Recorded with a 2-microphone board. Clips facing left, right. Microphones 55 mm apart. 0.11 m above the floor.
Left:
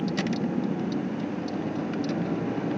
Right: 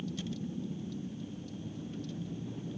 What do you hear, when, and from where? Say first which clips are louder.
0.0 s a vehicle: left 12 dB; 75° left (ahead or behind)